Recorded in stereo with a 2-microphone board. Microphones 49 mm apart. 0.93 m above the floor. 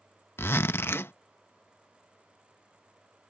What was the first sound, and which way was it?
A zipper, 60° left (ahead or behind).